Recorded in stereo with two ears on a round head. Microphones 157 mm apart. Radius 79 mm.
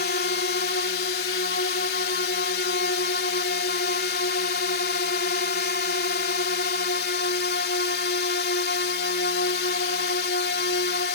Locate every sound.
0.0 s a drone: 60° left (ahead or behind)